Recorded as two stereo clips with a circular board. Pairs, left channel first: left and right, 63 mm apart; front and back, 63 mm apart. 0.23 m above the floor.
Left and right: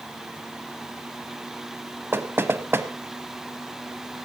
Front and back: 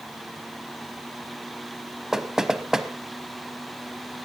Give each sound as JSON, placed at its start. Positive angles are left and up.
{"t": 2.1, "sound": "knocking", "azimuth_deg": -100, "distance_m": 0.8}